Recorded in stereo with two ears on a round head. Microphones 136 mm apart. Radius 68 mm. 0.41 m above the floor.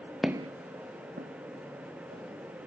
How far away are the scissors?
I don't hear scissors.